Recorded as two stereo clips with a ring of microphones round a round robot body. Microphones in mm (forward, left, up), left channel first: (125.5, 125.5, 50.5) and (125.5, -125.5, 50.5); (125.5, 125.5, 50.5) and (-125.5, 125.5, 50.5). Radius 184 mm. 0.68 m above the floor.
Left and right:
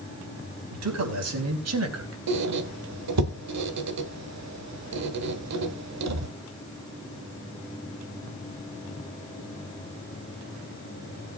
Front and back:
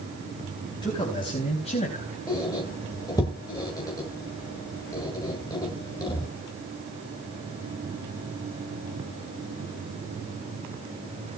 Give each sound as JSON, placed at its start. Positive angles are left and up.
{"t": 0.7, "sound": "a man speaking", "azimuth_deg": -80, "distance_m": 4.5}
{"t": 2.3, "sound": "a squeak", "azimuth_deg": -80, "distance_m": 1.4}